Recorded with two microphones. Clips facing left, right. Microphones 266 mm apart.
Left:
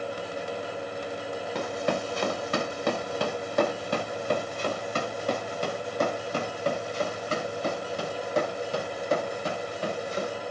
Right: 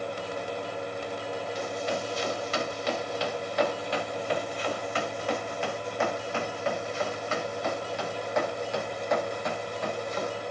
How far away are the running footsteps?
About 1.9 m.